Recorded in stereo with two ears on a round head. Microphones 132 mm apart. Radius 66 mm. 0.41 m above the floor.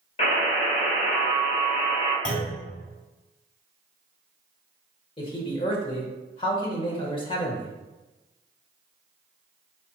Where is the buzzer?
45° left (ahead or behind), 1.8 m.